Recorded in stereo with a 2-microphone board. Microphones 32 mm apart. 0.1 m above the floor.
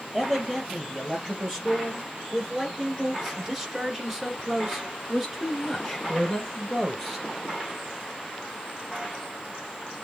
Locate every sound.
0.1 s a man speaking: 15° right (ahead or behind), 3 m; by 7.2 s 5° left (ahead or behind), 2 m